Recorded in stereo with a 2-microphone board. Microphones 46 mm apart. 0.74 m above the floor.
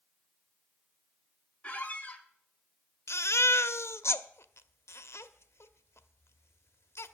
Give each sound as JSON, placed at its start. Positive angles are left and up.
{"t": 1.6, "sound": "a squeak", "side_deg": 30, "distance_m": 1.4}
{"t": 3.1, "sound": "a baby crying", "side_deg": 80, "distance_m": 0.7}